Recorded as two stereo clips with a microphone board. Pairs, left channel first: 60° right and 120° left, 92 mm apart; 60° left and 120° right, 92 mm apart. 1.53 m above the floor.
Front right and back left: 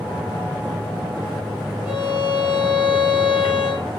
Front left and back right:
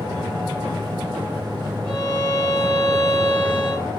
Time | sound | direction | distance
1.9 | a violin | 85° right | 6 m